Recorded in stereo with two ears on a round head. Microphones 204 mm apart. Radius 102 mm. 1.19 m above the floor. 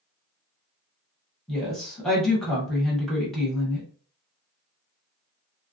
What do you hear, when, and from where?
1.5 s a woman speaking: centre (ahead or behind), 1.2 m